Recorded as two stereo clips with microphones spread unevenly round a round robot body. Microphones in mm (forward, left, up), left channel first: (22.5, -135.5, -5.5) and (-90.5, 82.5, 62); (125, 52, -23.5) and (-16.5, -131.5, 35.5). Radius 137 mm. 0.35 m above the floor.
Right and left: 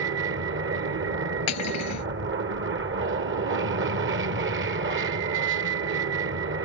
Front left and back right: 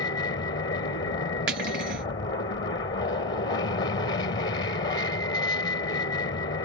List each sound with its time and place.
0.0 s an aircraft: 85° left
1.5 s cutlery clinking: 80° right